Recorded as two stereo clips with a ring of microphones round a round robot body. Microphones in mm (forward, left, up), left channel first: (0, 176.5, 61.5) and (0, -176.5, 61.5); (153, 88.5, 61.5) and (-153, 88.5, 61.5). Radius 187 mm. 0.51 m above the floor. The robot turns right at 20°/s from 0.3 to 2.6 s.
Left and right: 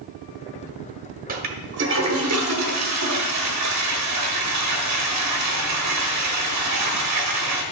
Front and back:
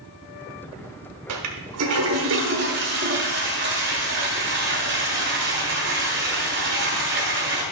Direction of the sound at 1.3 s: 155° right.